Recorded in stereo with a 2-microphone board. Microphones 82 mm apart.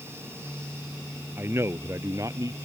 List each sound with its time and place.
1.4 s a man speaking: 30° right (ahead or behind); by 2.5 s 45° right (ahead or behind)